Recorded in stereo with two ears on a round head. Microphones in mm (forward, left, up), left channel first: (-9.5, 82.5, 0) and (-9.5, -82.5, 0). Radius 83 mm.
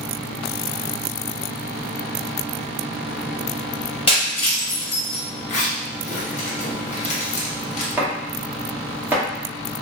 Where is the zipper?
40° left (ahead or behind), 0.7 m.